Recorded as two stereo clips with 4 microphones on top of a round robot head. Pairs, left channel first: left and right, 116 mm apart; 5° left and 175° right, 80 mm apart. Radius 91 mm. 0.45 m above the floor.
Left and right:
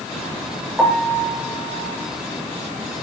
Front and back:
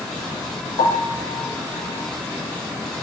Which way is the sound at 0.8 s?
Straight ahead.